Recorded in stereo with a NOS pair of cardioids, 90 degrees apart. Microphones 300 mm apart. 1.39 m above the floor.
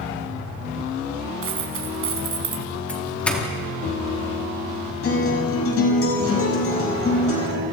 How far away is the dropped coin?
About 4 m.